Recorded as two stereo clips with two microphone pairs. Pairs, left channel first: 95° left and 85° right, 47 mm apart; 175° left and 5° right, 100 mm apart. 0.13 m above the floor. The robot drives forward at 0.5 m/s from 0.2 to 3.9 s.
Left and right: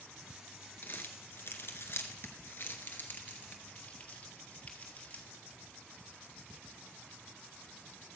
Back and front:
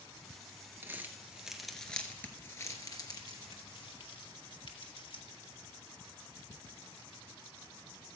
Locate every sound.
0.8 s crumpling: 60° left, 1.1 m; by 5.2 s 145° left, 1.4 m